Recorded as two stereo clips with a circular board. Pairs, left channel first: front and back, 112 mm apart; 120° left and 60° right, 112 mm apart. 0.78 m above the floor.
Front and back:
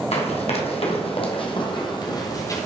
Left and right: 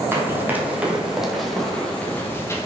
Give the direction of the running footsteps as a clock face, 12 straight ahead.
12 o'clock.